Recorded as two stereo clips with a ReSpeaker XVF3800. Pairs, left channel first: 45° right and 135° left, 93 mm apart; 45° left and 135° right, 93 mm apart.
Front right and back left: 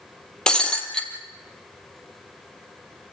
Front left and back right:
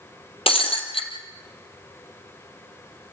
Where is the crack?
No crack in this recording.